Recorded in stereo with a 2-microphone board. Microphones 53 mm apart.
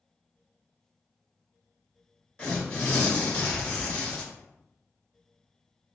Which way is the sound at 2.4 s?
10° left (ahead or behind).